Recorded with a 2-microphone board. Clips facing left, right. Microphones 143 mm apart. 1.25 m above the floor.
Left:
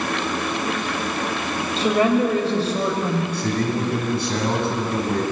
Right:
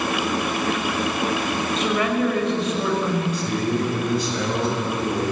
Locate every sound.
1.8 s a woman speaking: 35° left (ahead or behind), 6 m
3.3 s a man speaking: 65° left (ahead or behind), 7.5 m